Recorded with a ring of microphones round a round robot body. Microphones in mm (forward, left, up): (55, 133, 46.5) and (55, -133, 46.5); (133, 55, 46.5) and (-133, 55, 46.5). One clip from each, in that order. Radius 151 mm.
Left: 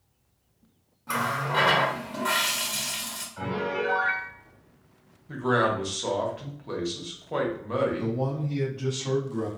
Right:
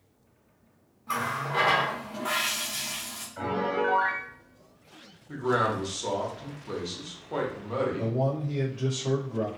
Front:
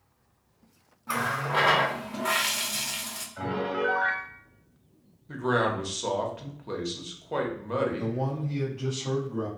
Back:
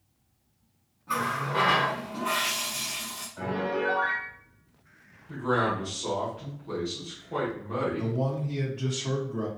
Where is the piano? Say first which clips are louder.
Right 2 dB, even; 35° right, 1.3 m.